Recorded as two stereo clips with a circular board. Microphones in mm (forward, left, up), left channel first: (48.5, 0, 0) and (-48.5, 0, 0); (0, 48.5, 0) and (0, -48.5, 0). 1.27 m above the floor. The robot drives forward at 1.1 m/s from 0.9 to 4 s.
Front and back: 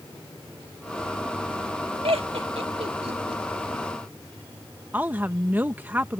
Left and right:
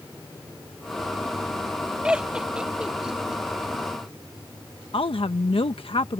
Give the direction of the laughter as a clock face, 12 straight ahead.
6 o'clock.